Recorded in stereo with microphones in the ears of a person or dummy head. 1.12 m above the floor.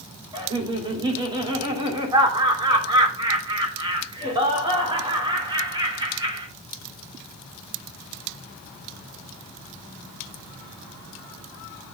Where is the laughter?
35° right (ahead or behind), 3 m.